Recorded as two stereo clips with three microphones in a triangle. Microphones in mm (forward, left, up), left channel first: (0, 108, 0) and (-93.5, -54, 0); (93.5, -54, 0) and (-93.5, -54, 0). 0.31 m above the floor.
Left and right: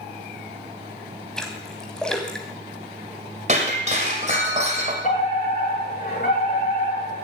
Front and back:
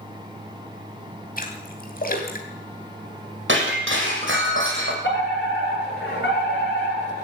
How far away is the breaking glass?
About 5.5 m.